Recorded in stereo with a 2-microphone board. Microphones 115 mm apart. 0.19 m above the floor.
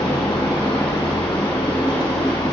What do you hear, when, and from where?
0.0 s running water: 35° left (ahead or behind), 2.5 m